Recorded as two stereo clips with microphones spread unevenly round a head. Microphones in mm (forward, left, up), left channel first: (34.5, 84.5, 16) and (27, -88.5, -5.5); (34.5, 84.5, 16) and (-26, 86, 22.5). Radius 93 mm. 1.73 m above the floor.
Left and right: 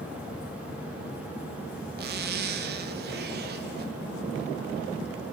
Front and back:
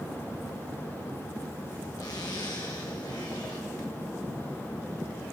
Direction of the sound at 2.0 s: 60° right.